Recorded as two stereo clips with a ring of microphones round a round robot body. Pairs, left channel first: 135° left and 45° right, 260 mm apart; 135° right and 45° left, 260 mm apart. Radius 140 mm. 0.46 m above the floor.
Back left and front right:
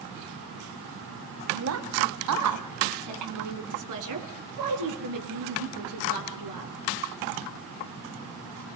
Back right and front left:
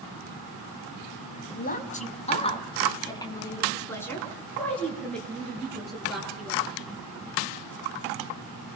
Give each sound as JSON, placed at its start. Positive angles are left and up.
{"t": 1.5, "sound": "a woman speaking", "azimuth_deg": -80, "distance_m": 3.0}